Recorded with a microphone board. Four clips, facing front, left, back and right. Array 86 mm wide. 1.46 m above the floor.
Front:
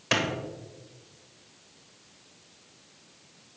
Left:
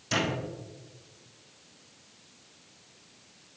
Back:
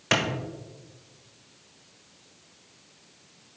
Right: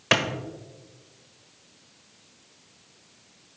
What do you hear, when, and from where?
0.1 s a clap: 105° right, 1.2 m